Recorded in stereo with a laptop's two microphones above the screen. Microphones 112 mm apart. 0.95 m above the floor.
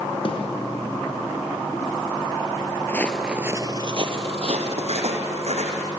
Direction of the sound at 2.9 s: 20° left (ahead or behind).